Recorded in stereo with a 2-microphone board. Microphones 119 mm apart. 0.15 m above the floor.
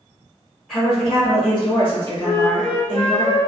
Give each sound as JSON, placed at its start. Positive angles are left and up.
{"t": 0.7, "sound": "a woman speaking", "side_deg": 5, "distance_m": 1.6}
{"t": 2.2, "sound": "a flute", "side_deg": 35, "distance_m": 1.6}